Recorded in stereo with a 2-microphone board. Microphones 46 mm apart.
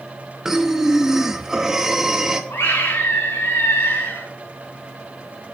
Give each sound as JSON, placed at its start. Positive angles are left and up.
{"t": 0.5, "sound": "breathing", "side_deg": -10, "distance_m": 1.3}
{"t": 2.5, "sound": "a scream", "side_deg": 85, "distance_m": 5.0}